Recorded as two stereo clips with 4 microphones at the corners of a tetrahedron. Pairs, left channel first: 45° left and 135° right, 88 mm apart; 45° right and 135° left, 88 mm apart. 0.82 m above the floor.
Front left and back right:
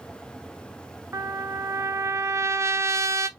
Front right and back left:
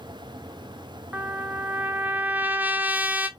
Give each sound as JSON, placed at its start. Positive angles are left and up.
{"t": 1.1, "sound": "a trumpet", "azimuth_deg": -165, "distance_m": 0.6}